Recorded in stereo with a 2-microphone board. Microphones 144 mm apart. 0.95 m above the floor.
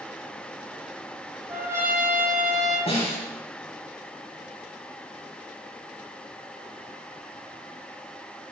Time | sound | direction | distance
1.5 | a trumpet | 20° right (ahead or behind) | 7 m
2.9 | a snare drum | 40° left (ahead or behind) | 6 m